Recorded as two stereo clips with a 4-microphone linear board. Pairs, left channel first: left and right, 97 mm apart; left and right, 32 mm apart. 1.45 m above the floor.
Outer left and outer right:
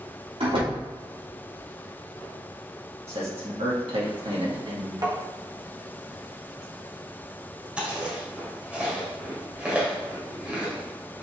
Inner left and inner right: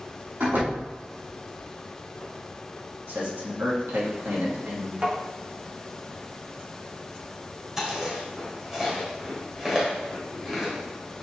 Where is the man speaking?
85° right, 2 m.